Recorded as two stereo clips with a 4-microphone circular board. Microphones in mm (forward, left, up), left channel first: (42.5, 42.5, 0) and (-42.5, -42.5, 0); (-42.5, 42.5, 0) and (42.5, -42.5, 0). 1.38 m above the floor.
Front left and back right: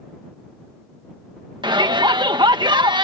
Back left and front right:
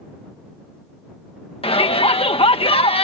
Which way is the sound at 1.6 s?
175° left.